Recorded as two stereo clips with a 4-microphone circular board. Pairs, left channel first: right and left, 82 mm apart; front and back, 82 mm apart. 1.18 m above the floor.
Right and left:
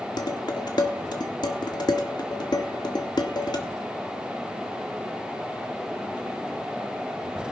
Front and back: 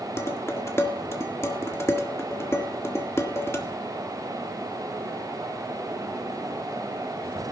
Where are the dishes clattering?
60° right, 1.7 m.